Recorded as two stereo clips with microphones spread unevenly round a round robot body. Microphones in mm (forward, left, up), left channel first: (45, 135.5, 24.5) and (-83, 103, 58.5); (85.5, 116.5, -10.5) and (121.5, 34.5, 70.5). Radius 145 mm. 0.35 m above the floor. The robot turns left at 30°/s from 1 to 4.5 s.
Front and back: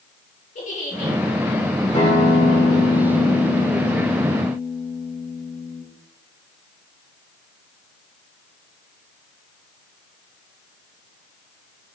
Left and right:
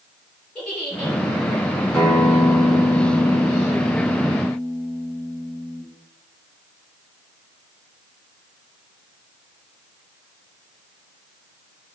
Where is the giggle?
35° left, 4 m; by 1.1 s 30° left, 4 m.